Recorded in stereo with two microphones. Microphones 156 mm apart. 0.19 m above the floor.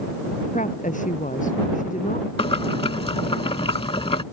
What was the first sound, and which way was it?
A woman speaking, 55° left (ahead or behind).